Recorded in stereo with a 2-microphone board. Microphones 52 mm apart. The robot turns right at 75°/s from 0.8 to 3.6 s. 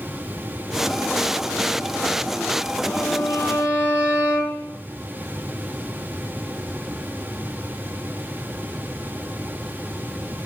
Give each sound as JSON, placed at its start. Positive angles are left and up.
{"t": 2.9, "sound": "a violin", "azimuth_deg": -85, "distance_m": 4.0}